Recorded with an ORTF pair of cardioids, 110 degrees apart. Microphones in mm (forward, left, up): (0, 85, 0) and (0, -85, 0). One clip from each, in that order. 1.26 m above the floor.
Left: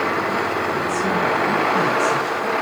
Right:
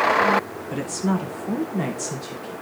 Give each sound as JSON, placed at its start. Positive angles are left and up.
{"t": 0.7, "sound": "a woman speaking", "azimuth_deg": -45, "distance_m": 2.5}